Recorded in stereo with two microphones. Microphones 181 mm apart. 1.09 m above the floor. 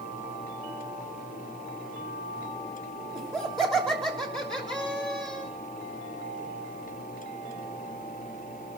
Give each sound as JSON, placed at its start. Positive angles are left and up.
{"t": 3.1, "sound": "laughter", "side_deg": 0, "distance_m": 3.0}